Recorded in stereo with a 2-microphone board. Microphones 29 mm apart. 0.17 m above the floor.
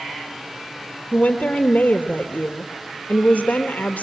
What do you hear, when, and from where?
1.1 s a woman speaking: 65° left (ahead or behind), 3.5 m